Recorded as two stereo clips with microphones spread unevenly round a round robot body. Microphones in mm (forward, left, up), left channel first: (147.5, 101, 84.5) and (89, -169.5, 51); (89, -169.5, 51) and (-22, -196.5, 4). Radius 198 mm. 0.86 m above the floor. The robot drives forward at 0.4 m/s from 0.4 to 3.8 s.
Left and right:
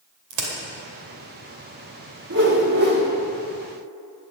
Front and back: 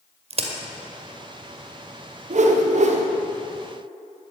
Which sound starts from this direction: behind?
A whoosh, at 2.3 s.